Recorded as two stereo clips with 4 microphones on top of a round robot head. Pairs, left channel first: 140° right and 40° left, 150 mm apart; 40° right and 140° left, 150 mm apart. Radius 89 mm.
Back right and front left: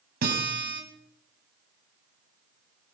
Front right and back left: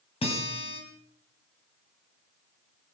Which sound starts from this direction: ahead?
A guitar, at 0.2 s.